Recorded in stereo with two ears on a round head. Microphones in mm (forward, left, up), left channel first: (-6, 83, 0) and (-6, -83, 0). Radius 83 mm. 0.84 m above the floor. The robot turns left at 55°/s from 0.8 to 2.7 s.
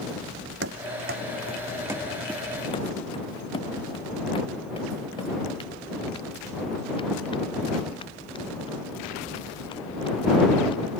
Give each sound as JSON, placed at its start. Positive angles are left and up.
{"t": 0.6, "sound": "running footsteps", "side_deg": -65}